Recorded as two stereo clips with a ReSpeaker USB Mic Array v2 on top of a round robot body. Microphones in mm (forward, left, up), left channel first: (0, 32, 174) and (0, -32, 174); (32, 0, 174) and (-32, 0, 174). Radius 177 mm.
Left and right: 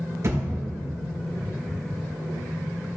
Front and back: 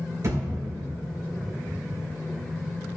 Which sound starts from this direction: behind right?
A thud, at 0.2 s.